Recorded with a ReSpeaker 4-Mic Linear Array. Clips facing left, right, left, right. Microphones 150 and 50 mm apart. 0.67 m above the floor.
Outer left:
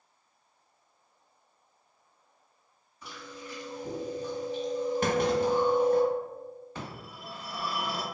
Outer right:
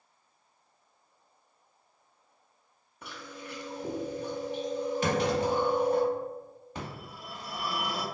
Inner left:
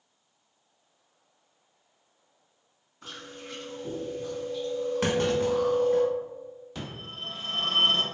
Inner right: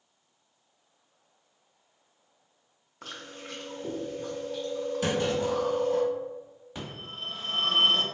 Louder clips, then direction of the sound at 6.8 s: Outer right 1 dB, inner right 1 dB; 15° right (ahead or behind).